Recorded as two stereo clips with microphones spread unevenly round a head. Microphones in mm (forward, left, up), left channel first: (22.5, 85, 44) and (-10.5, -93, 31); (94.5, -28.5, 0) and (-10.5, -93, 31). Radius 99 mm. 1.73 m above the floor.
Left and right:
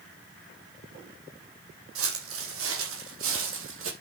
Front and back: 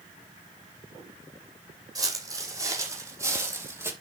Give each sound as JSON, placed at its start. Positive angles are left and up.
{"t": 1.9, "sound": "footsteps", "azimuth_deg": -95, "distance_m": 4.5}